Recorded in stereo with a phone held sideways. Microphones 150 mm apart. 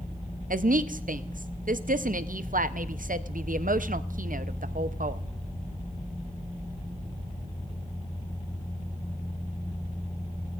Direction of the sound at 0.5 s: 65° right (ahead or behind).